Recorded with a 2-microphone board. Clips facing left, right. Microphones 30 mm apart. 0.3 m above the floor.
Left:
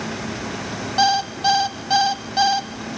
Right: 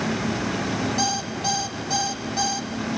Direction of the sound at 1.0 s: 40° left (ahead or behind).